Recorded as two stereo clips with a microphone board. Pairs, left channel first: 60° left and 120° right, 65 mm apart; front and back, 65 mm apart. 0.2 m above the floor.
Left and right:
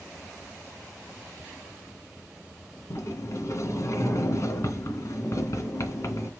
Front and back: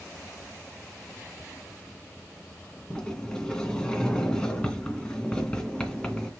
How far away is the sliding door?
About 2 m.